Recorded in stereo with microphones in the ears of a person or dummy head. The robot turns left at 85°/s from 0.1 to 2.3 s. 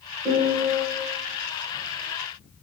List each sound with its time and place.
0.2 s a piano: 10° right, 1.3 m; by 0.8 s 60° right, 1.3 m